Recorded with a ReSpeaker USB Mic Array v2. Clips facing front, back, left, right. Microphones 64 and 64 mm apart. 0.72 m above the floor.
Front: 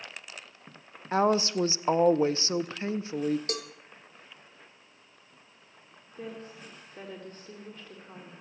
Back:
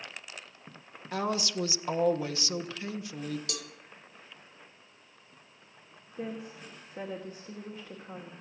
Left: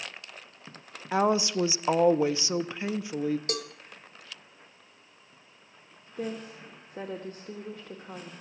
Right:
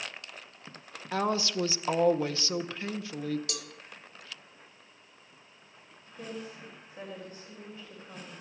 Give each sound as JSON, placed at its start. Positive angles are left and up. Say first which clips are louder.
{"t": 1.1, "sound": "a woman speaking", "louder": "front 7 dB, left 5 dB", "azimuth_deg": 30, "distance_m": 0.6}
{"t": 3.5, "sound": "a cowbell", "louder": "front 6 dB, left 8 dB", "azimuth_deg": 45, "distance_m": 0.8}
{"t": 6.2, "sound": "a woman speaking", "louder": "back 2 dB, left 5 dB", "azimuth_deg": 100, "distance_m": 1.8}